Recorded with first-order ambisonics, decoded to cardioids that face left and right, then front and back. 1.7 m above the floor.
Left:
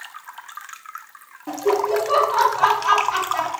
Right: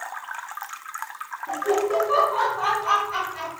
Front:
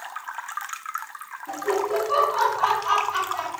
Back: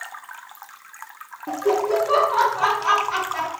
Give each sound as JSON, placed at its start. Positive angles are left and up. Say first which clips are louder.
{"t": 1.5, "sound": "laughter", "louder": "left 3 dB, back 4 dB", "azimuth_deg": 140, "distance_m": 0.8}